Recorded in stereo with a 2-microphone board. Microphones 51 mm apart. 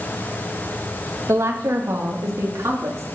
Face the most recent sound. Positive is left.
turn(degrees=-75)  # may be behind; listen again after turning